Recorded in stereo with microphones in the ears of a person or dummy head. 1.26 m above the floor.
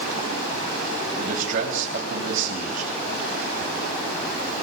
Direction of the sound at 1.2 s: 50° right (ahead or behind).